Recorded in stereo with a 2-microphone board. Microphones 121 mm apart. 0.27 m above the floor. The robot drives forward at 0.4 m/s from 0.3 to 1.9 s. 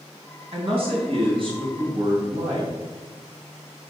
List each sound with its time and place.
0.5 s a man speaking: 55° right (ahead or behind), 2.5 m; by 2.7 s 50° right (ahead or behind), 2.5 m